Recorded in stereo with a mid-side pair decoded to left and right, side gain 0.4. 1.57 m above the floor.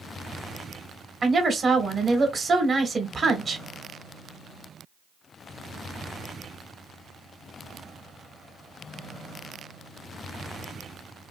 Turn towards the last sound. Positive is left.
turn(degrees=-40)